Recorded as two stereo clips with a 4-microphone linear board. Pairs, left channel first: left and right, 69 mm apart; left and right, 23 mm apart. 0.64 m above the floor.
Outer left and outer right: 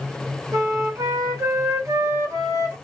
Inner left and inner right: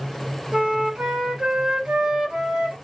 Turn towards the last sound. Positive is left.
turn(degrees=-50)  # may be behind; listen again after turning